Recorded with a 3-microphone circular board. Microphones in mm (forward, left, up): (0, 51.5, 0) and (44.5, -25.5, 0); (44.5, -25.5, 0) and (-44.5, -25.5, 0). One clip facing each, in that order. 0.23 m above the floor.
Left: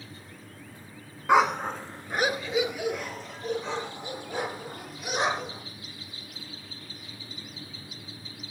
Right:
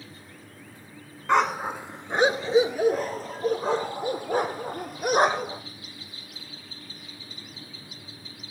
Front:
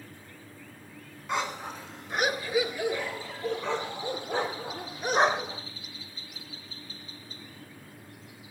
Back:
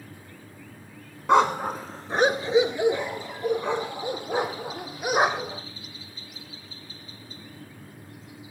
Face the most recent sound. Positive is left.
turn(degrees=-100)